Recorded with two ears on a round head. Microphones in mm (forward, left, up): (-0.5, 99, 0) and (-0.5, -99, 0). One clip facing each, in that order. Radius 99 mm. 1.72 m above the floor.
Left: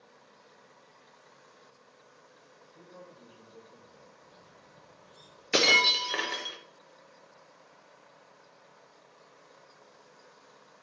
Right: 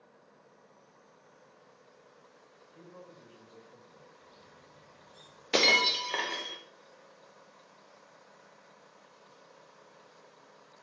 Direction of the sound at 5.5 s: 10° left (ahead or behind).